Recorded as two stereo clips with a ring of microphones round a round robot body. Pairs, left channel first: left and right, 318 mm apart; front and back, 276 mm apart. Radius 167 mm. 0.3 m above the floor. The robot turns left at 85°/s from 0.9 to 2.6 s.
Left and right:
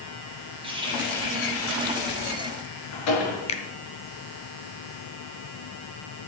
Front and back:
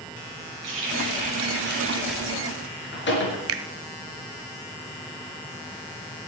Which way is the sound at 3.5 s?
155° left.